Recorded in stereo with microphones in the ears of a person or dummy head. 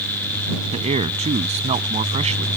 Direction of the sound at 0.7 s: 35° right (ahead or behind).